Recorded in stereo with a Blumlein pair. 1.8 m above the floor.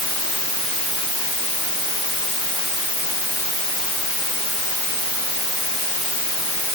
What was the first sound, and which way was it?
Only background noise.